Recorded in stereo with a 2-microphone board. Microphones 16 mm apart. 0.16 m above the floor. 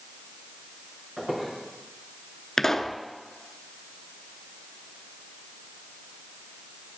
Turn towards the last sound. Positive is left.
turn(degrees=30)  # may be behind; listen again after turning